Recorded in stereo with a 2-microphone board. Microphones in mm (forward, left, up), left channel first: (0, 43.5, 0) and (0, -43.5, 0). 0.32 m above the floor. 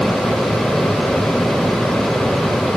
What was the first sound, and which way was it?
Only background noise.